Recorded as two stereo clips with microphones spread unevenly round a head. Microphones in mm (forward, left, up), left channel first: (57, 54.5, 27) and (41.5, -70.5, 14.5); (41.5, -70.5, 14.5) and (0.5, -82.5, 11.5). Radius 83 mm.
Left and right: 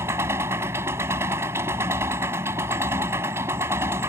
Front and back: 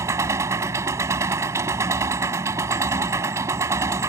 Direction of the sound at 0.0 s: 175° right.